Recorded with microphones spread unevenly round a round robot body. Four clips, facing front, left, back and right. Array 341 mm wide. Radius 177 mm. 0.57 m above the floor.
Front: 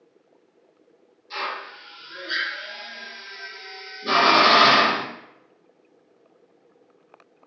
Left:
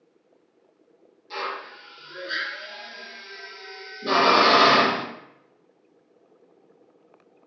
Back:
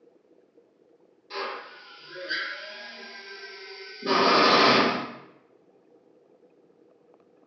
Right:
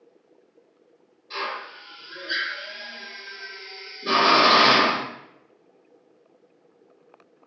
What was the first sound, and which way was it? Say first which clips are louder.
A drill: even, front 3 dB; 135° left.